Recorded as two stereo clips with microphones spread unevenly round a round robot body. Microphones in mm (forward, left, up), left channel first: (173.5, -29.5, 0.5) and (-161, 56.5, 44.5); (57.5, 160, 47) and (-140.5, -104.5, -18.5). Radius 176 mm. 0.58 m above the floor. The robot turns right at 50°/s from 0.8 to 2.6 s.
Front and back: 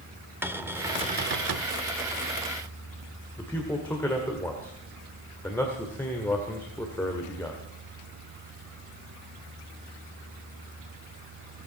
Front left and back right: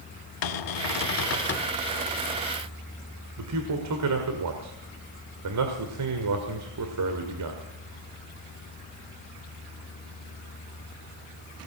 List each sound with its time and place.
0.4 s a cupboard door: 80° left, 1.0 m; by 1.7 s 125° left, 1.0 m
3.4 s a man speaking: 95° right, 1.8 m